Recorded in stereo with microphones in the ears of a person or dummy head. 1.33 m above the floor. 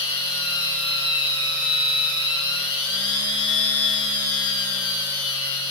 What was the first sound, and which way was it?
A machine running, 25° left (ahead or behind).